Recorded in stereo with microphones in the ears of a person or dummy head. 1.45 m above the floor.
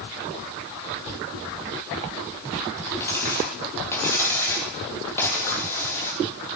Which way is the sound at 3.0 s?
15° left (ahead or behind).